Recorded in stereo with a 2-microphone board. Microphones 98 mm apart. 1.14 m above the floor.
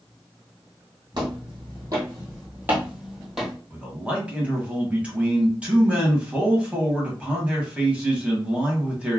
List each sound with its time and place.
1.1 s footsteps: 50° right (ahead or behind), 1.7 m; by 3.5 s centre (ahead or behind), 1.6 m
3.7 s a man speaking: 10° right (ahead or behind), 1.2 m